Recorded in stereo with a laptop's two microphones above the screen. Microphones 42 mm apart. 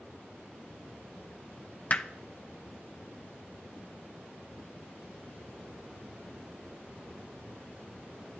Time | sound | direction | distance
1.9 | hammering | 35° left (ahead or behind) | 0.6 m